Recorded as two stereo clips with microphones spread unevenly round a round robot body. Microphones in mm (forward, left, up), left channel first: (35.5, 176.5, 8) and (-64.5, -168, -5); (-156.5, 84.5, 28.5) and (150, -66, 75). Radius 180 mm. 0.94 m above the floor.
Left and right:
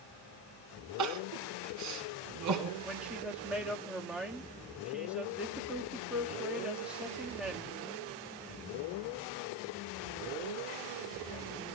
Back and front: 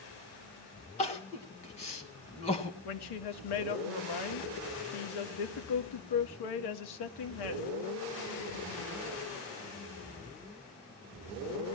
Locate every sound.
1.0 s crying: 140° right, 1.5 m
2.9 s a woman speaking: 165° left, 1.5 m